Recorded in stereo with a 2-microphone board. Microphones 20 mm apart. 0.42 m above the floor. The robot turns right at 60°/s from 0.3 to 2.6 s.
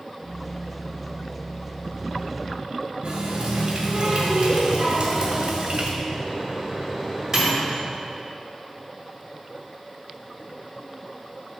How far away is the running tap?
About 1.3 m.